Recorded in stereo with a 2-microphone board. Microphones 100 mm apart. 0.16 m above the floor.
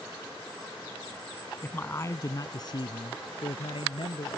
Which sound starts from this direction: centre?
A man speaking, at 1.6 s.